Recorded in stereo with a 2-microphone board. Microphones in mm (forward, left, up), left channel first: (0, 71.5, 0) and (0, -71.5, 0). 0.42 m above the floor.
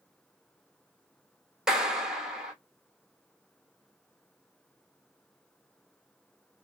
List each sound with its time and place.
1.7 s a clap: 5° right (ahead or behind), 1.1 m